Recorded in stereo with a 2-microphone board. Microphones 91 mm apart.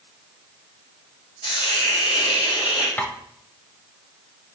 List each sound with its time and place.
1.4 s a hiss: 55° left (ahead or behind), 3 m
3.0 s tapping: 15° left (ahead or behind), 1.2 m